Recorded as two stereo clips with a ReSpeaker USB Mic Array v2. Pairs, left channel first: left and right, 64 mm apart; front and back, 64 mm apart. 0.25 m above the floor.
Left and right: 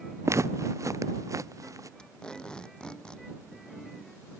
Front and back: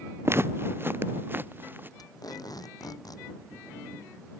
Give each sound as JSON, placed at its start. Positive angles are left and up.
{"t": 0.2, "sound": "footsteps", "azimuth_deg": -130}
{"t": 2.0, "sound": "tape being pulled", "azimuth_deg": 15}